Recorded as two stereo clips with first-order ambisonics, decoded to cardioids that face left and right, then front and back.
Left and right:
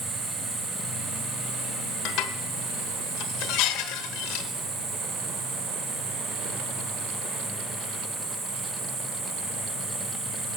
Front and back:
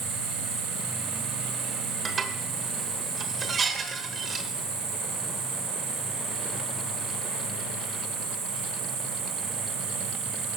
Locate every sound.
0.0 s an insect: 155° right, 6 m
2.0 s dishes clattering: 110° left, 1.1 m